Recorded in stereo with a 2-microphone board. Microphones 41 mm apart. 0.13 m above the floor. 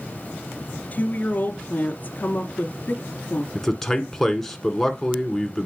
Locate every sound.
0.9 s a woman speaking: 40° left (ahead or behind), 1.6 m
3.5 s a man speaking: 10° left (ahead or behind), 1.3 m